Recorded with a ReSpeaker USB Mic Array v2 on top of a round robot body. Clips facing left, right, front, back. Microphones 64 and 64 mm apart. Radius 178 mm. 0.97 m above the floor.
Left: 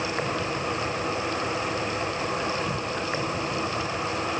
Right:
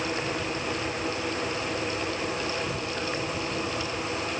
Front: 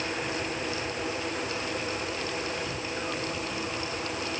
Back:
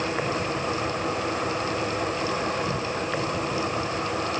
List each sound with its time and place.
0.0 s an insect: 145° left